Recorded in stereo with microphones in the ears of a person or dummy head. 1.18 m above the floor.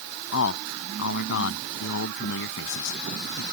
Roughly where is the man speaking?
Left.